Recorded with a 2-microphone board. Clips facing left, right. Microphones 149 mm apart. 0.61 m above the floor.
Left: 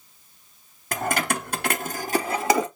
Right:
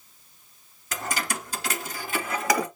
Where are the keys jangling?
50° left (ahead or behind), 1.0 m; by 2.7 s 25° left (ahead or behind), 1.2 m.